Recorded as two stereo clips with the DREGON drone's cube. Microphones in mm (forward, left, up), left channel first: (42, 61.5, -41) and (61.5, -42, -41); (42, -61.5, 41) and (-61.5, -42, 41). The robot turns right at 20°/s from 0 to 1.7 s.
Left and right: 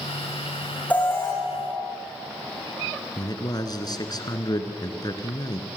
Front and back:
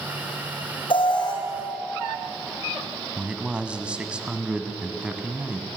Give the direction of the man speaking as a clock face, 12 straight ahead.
9 o'clock.